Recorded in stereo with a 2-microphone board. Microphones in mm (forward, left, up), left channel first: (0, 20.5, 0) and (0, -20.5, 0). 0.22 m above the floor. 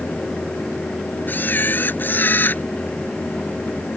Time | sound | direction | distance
1.3 | a camera shutter | 50° left (ahead or behind) | ?